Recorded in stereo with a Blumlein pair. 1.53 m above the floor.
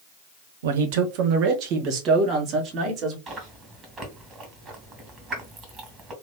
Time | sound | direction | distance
0.6 | a man speaking | 60° right | 0.8 m
3.3 | chewing | 20° right | 2.5 m